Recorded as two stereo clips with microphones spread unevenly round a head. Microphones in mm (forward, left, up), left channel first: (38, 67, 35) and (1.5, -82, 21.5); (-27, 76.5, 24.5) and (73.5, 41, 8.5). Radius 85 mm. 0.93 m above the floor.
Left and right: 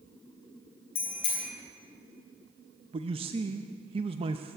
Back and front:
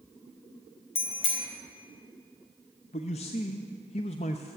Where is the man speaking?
155° right, 0.6 m.